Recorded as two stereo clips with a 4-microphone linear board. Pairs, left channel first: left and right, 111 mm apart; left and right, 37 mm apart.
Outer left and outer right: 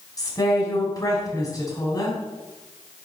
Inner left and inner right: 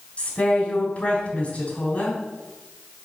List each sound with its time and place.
0.2 s a woman speaking: 35° left (ahead or behind), 4 m